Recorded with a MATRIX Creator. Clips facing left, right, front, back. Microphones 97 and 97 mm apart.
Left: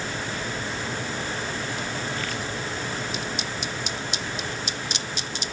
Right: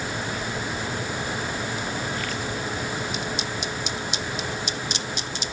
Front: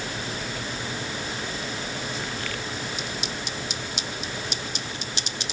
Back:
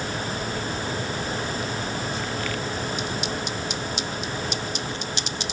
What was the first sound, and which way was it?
Only background noise.